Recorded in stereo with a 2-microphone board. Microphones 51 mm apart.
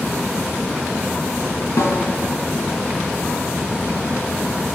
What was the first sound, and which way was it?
A snare drum, 65° left (ahead or behind).